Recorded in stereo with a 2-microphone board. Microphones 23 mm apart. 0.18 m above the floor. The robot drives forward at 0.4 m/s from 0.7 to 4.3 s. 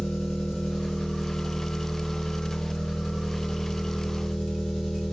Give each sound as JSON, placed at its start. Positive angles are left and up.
{"t": 0.0, "sound": "an engine running", "side_deg": 45, "distance_m": 6.0}